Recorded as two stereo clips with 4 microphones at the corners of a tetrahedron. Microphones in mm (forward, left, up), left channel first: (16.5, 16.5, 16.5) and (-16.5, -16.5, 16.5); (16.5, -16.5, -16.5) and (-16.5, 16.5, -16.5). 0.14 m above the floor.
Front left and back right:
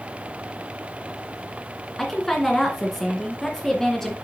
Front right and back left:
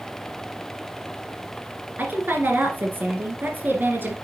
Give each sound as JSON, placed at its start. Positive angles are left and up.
{"t": 2.0, "sound": "a woman speaking", "azimuth_deg": 125, "distance_m": 2.0}